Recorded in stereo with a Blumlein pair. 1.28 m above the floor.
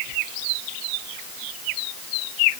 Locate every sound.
Only background noise.